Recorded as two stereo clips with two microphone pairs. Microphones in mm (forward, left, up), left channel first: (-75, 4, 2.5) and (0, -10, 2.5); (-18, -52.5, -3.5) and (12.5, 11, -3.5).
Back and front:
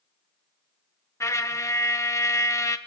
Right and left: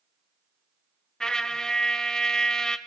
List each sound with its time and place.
1.2 s a trumpet: 170° left, 0.6 m